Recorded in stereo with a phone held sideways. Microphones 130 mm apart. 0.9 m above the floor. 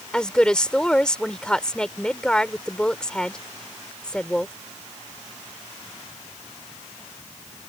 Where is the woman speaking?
5° left (ahead or behind).